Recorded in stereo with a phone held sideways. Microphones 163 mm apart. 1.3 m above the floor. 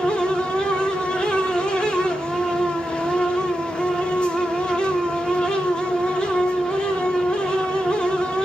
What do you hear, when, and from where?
0.0 s a fan: 5° left (ahead or behind), 0.9 m